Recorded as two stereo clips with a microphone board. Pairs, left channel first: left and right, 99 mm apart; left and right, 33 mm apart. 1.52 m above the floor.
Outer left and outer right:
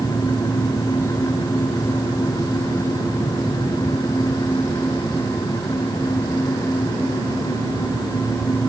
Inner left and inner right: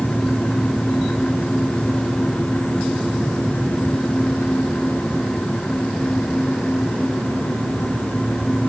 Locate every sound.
Only background noise.